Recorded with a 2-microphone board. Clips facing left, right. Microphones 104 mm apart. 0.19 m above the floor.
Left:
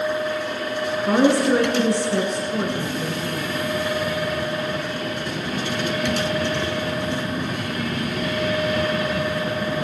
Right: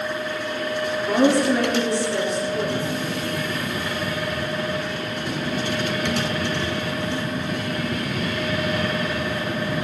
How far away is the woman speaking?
About 2.5 m.